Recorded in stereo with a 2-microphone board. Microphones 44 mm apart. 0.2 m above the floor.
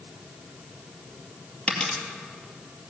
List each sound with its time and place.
1.7 s a dropped coin: 25° left (ahead or behind), 2 m